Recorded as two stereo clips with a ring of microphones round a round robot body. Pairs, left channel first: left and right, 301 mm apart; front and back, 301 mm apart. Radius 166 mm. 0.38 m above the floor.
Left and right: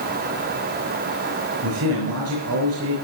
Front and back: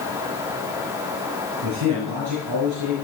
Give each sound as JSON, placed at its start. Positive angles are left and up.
{"t": 1.6, "sound": "a man speaking", "azimuth_deg": -140, "distance_m": 5.5}